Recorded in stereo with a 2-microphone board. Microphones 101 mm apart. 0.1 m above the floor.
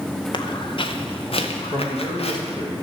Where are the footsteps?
50° left (ahead or behind), 1.6 m; by 2.6 s 80° left, 2.5 m.